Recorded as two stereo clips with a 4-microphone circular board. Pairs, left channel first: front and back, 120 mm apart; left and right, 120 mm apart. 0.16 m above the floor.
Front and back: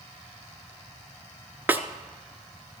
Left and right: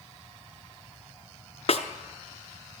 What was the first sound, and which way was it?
A snare drum, 105° left.